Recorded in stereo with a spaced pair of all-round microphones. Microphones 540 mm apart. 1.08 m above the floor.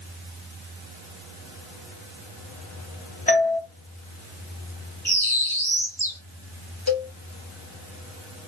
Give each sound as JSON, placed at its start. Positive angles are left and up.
{"t": 3.3, "sound": "a doorbell", "side_deg": 15, "distance_m": 0.8}
{"t": 5.0, "sound": "a bird", "side_deg": 5, "distance_m": 2.0}
{"t": 6.9, "sound": "a cowbell", "side_deg": 40, "distance_m": 0.9}